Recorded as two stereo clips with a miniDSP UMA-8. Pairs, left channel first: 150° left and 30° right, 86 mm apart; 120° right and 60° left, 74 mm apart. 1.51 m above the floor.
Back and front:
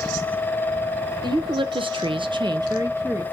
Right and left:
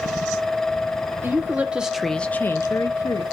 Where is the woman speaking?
Straight ahead, 1.1 m; by 3.2 s 95° right, 1.0 m.